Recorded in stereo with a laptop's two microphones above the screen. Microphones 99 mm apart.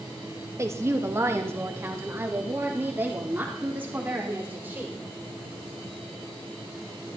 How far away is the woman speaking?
About 1.2 m.